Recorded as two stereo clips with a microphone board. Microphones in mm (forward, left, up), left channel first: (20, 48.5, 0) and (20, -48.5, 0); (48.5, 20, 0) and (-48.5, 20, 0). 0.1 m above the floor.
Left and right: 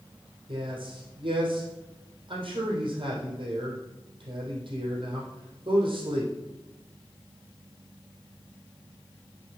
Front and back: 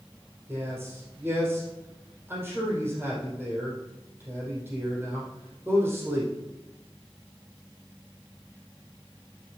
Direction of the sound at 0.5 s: 115° right.